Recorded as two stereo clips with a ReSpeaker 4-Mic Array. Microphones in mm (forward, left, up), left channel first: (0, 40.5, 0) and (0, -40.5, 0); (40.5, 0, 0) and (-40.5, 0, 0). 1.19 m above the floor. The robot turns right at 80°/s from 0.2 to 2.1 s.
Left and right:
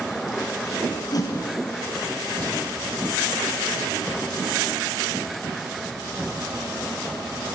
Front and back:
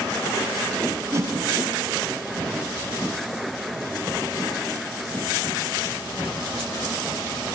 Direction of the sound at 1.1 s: 125° left.